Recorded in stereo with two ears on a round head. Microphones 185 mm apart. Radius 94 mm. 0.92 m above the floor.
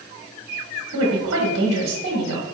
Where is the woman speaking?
55° right (ahead or behind), 1.3 m.